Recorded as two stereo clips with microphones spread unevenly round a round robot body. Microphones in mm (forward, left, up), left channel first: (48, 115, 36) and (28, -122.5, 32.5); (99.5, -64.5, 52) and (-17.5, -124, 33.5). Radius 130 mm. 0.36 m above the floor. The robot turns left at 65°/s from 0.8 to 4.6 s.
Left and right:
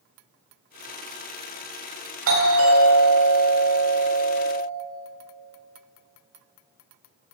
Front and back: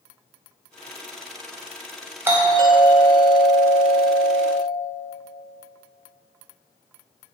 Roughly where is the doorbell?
Right.